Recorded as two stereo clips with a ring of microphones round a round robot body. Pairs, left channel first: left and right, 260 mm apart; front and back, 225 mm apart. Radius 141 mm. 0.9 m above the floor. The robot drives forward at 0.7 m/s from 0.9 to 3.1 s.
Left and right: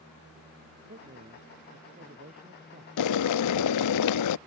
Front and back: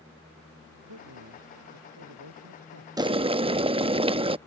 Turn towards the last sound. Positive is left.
turn(degrees=110)